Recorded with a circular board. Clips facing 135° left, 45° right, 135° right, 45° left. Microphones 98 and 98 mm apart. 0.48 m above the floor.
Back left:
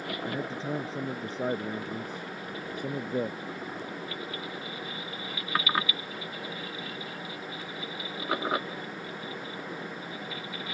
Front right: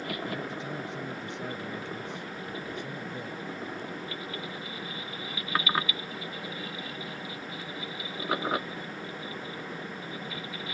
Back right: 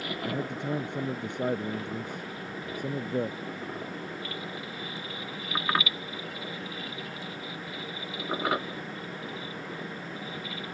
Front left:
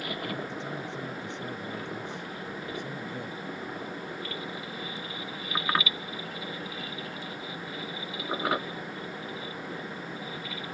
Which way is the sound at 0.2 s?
165° right.